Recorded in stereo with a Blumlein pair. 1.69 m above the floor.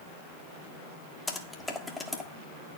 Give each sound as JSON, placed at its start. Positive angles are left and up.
{"t": 1.3, "sound": "typing on a keyboard", "azimuth_deg": 10, "distance_m": 1.3}